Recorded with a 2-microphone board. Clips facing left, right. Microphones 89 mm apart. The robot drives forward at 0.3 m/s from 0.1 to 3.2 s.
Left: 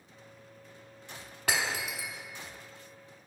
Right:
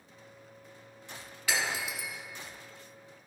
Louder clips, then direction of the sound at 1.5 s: Left 1 dB; 55° left (ahead or behind).